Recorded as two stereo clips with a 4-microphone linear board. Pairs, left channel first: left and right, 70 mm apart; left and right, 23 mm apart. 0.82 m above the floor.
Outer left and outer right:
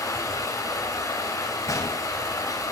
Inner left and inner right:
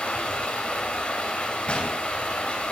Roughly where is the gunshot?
Left.